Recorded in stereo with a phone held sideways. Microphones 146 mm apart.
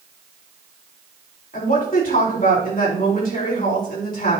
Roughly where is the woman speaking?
Left.